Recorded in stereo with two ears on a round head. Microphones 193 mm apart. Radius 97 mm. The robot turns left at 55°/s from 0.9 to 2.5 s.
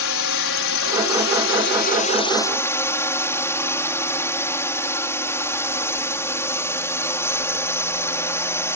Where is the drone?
100° left; by 8.8 s 15° left.